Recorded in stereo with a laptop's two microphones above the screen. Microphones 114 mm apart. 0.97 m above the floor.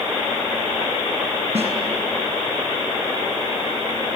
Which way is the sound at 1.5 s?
65° right (ahead or behind).